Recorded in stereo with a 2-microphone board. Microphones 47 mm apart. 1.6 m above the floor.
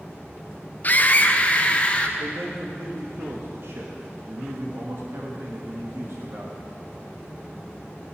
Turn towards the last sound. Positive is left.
turn(degrees=-65)  # may be behind; listen again after turning